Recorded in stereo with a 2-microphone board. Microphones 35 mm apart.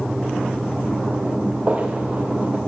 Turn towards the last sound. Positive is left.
turn(degrees=-30)  # may be behind; listen again after turning